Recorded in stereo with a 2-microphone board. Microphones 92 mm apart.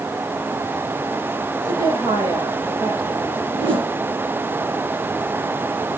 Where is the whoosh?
75° right (ahead or behind), 6.5 m.